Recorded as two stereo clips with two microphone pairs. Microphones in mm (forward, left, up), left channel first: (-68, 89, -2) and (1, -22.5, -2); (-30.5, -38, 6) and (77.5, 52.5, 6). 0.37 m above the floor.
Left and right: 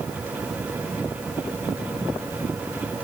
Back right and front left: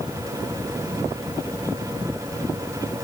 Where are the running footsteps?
No running footsteps in this recording.